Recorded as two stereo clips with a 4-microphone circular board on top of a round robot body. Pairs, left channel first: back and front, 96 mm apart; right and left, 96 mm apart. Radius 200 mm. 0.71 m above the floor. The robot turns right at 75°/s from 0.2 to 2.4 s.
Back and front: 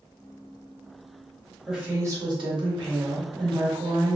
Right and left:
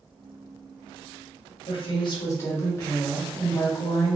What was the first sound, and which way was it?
A woman speaking, 85° right.